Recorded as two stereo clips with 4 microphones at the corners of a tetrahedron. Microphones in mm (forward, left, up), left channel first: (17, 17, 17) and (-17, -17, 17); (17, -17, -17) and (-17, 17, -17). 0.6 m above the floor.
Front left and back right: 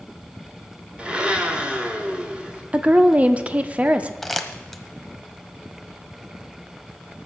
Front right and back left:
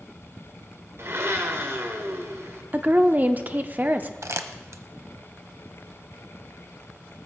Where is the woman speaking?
170° left, 0.8 m.